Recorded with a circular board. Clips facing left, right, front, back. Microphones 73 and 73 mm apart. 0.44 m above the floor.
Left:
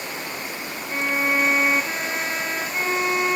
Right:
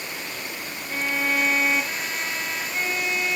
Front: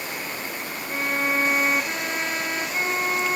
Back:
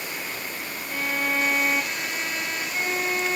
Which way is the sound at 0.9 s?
40° left.